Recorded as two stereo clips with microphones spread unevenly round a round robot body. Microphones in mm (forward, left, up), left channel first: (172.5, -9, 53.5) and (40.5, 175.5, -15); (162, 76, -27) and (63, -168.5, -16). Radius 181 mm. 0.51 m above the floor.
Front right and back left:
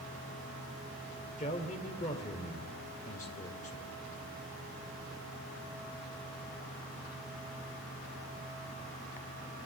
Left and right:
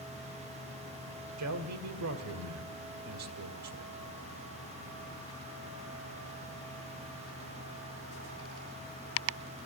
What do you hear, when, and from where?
1.4 s a man speaking: 125° right, 2 m